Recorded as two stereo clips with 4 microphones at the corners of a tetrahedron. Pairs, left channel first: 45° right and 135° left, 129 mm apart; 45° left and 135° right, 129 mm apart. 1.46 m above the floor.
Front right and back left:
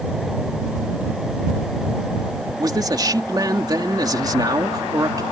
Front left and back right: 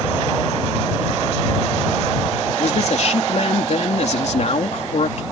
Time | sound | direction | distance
2.6 | a man speaking | 75° left | ?